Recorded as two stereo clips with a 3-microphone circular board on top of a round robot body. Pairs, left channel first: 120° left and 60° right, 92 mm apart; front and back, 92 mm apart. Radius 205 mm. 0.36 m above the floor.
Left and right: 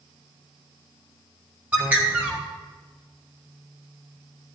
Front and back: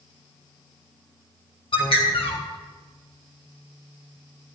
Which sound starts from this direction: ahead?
A bird, at 1.7 s.